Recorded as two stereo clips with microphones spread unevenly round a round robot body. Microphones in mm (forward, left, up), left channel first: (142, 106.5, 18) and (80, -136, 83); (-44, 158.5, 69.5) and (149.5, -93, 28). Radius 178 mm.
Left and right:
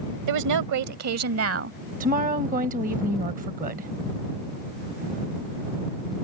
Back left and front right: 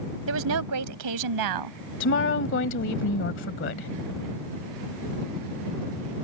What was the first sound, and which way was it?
A woman speaking, 105° right.